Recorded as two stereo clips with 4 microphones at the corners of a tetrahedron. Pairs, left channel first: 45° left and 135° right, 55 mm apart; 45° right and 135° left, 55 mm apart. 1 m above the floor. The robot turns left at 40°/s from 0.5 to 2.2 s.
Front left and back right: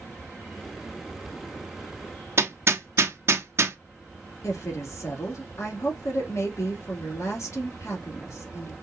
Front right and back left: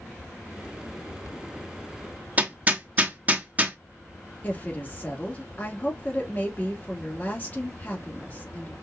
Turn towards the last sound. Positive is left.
turn(degrees=10)